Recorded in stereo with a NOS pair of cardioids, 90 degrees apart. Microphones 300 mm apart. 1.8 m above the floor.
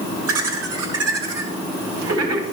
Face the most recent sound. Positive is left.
turn(degrees=-55)